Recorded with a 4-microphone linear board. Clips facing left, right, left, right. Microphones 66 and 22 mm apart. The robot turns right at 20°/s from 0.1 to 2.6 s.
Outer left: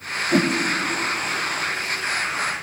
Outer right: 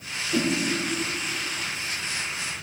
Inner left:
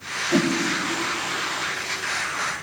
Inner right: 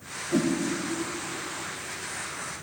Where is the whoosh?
70° left (ahead or behind), 0.7 m.